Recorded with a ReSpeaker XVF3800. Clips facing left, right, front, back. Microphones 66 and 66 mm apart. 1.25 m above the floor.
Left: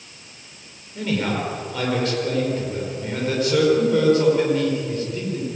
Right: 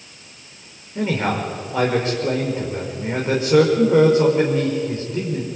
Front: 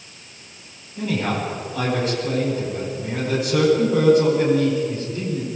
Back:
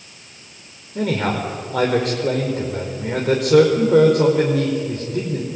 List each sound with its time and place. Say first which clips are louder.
0.9 s a man speaking: right 2 dB, back 3 dB; 155° right, 5 m